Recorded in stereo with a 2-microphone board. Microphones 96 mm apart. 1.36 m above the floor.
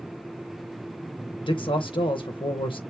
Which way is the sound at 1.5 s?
65° left (ahead or behind).